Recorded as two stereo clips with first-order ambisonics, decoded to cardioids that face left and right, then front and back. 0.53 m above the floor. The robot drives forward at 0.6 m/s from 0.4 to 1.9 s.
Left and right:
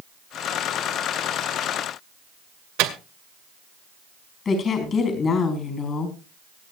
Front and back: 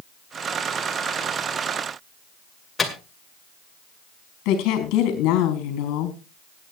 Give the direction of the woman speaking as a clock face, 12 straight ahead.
11 o'clock.